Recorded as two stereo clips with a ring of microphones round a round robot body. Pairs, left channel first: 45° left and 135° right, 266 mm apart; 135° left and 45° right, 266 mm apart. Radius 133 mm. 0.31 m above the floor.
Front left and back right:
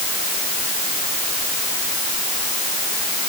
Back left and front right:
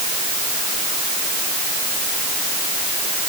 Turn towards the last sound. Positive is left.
No sound to turn to.